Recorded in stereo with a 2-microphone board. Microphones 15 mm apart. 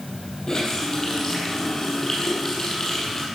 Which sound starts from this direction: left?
A running tap, at 0.5 s.